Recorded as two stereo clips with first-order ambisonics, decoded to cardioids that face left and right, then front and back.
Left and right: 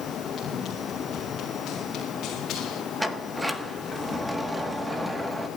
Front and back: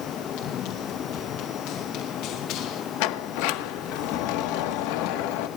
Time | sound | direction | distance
0.4 | running footsteps | 25° left | 8.5 m
3.0 | a sliding door | 5° right | 1.3 m